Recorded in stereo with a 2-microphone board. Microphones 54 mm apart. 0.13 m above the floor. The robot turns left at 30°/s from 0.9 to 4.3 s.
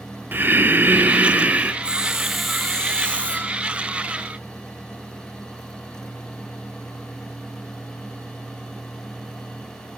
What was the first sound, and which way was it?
Breathing, 40° right (ahead or behind).